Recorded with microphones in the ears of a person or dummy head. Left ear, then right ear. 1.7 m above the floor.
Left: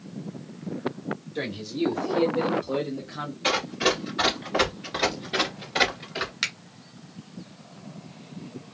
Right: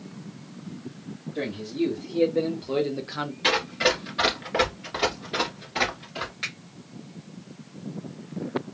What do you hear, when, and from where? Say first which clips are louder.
1.4 s a man speaking: right 2 dB; 10° left (ahead or behind), 1.5 m; by 3.3 s 55° right (ahead or behind), 0.8 m
3.4 s running footsteps: right 1 dB; 20° right (ahead or behind), 1.9 m; by 6.3 s 25° left (ahead or behind), 2 m
6.4 s a finger snap: left 5 dB; 50° left (ahead or behind), 1.1 m